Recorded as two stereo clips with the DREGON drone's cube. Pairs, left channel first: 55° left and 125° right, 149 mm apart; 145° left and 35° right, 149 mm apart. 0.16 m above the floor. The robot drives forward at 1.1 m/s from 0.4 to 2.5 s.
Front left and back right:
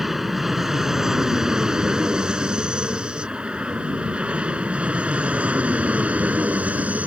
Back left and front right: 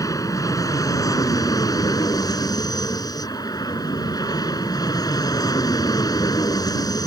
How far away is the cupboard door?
I don't hear a cupboard door.